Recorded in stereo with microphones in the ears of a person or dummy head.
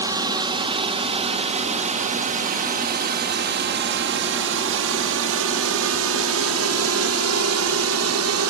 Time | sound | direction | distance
0.0 | a drone | 15° right (ahead or behind) | ?